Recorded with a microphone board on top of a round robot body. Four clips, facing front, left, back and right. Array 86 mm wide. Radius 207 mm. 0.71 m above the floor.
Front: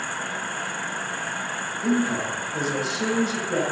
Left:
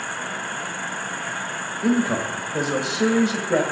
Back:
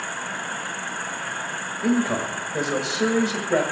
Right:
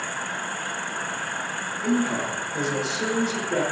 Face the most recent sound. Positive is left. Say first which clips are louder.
# left 3 dB, back 1 dB
turn(degrees=120)